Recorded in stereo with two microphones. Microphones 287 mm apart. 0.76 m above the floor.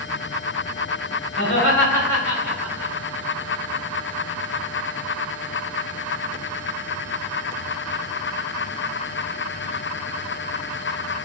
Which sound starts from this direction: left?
Laughter, at 1.4 s.